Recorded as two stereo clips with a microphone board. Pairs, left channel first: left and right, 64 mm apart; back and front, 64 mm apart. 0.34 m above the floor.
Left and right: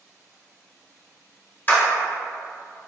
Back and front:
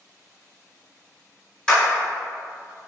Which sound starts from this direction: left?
A clap, at 1.7 s.